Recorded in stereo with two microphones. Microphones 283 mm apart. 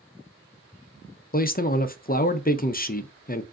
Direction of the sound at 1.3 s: 35° left (ahead or behind).